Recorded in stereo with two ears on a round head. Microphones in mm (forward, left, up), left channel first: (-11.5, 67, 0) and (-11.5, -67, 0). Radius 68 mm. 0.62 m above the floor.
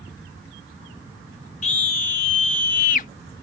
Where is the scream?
55° left (ahead or behind).